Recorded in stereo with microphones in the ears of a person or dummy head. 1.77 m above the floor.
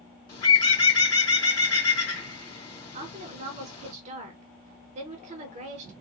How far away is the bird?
About 1.2 m.